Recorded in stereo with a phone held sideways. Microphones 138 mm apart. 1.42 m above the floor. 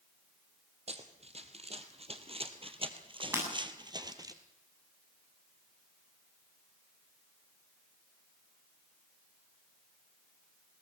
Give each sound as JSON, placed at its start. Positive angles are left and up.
{"t": 0.9, "sound": "running footsteps", "side_deg": -50, "distance_m": 2.5}
{"t": 3.3, "sound": "breaking glass", "side_deg": -20, "distance_m": 7.5}